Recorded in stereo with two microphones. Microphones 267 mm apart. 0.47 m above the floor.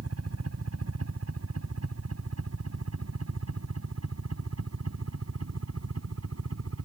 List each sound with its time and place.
0.0 s a helicopter: 65° right (ahead or behind)